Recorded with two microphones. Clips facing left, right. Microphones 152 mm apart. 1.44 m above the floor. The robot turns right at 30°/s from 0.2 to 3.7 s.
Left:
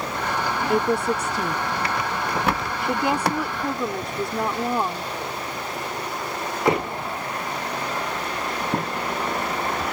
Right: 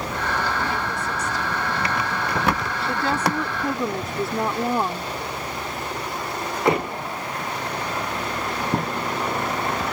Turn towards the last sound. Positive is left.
turn(degrees=-175)